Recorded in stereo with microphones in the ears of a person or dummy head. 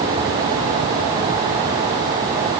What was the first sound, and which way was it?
Only background noise.